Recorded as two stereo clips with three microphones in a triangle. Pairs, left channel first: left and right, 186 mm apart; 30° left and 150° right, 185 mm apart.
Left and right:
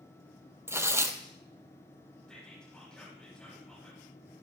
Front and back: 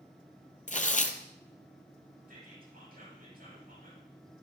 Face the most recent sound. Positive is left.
turn(degrees=175)